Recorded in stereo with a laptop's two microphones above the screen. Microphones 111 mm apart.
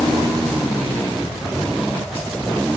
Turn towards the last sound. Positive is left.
No sound to turn to.